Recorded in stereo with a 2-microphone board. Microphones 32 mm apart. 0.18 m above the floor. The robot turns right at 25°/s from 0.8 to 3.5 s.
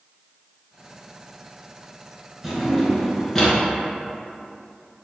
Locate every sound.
2.4 s a drawer: 5° right (ahead or behind), 1.1 m; by 3.5 s 15° left (ahead or behind), 1.1 m